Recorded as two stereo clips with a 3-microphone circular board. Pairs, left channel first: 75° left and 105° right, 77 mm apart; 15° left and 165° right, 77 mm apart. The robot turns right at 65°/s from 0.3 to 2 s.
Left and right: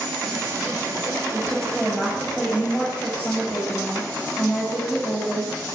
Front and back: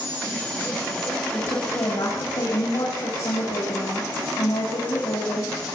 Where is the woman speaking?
45° right, 7 m; by 5.5 s 5° right, 7 m.